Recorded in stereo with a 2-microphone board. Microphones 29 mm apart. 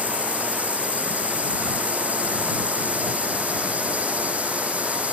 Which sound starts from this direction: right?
A drone, at 0.0 s.